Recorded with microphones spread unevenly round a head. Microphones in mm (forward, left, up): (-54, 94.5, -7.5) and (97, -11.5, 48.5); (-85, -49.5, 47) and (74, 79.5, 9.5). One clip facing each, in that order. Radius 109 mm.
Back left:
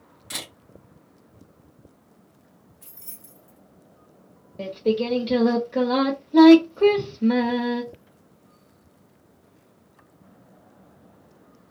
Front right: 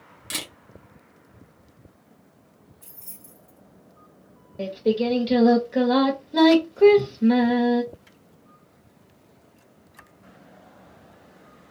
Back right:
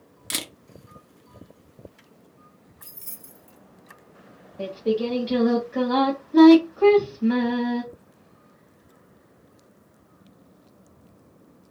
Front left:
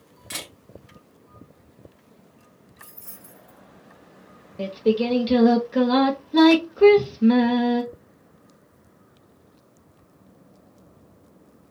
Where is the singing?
15° left, 1.0 m.